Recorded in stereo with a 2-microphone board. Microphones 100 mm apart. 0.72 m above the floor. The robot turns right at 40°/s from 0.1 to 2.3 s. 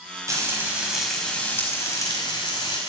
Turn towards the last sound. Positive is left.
turn(degrees=50)